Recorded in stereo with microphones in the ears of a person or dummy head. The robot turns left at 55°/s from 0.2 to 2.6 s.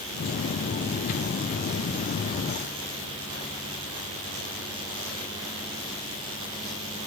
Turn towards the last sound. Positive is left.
No sound to turn to.